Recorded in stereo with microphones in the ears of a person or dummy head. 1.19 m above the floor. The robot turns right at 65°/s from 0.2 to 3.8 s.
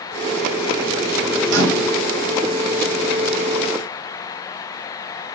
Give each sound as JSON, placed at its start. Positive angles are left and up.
{"t": 1.5, "sound": "a microwave", "azimuth_deg": -115, "distance_m": 1.3}